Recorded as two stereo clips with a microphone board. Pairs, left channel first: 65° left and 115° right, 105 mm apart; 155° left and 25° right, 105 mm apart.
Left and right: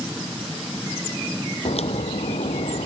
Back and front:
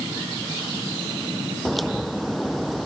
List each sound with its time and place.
1.6 s a crack: 70° left